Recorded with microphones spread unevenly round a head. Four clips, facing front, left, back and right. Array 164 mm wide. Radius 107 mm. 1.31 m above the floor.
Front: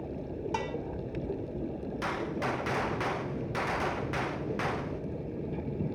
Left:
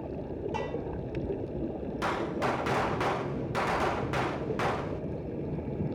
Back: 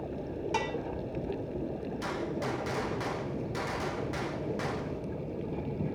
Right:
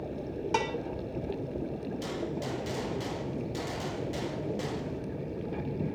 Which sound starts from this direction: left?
A gunshot, at 2.0 s.